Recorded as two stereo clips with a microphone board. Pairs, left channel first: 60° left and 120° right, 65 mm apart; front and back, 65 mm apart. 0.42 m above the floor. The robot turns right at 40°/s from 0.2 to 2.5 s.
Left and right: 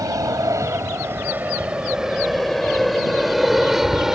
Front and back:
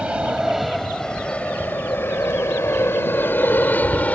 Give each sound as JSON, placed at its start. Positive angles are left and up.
{"t": 0.0, "sound": "an aircraft", "azimuth_deg": -105}